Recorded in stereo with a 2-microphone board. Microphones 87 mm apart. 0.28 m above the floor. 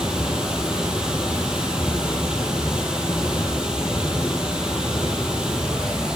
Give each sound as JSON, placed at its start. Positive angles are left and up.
{"t": 0.0, "sound": "running water", "side_deg": -5, "distance_m": 3.0}